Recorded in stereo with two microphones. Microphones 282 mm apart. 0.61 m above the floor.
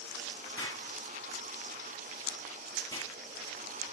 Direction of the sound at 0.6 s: 10° left (ahead or behind).